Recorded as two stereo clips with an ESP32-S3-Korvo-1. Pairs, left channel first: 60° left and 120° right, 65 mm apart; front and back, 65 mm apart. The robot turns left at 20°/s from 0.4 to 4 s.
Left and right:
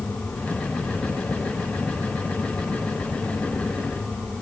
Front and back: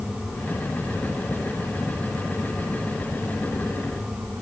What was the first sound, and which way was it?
Only background noise.